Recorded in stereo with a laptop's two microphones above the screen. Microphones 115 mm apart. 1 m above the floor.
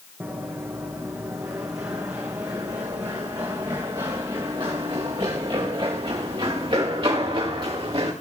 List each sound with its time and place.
0.2 s running footsteps: 20° right (ahead or behind), 3.5 m; by 8.1 s 55° right (ahead or behind), 8 m